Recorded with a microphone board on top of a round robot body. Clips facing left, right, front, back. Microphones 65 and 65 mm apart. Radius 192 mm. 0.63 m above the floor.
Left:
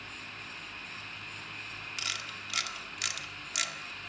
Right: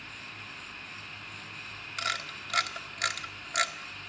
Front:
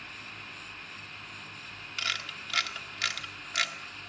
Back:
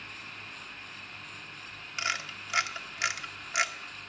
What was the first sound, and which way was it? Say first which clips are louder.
A camera shutter: right 8 dB, back 2 dB; 115° right.